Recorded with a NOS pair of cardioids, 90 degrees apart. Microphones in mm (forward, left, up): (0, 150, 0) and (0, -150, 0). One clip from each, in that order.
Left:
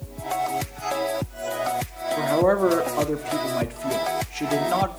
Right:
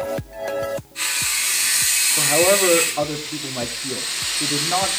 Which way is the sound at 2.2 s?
5° left.